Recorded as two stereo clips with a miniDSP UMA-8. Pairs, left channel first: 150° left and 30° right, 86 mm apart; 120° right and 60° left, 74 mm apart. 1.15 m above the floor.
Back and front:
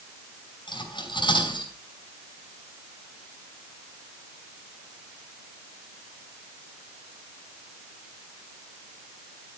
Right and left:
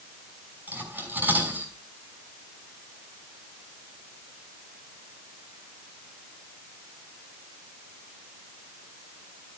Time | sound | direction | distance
0.7 | cutlery clinking | 125° left | 5.5 m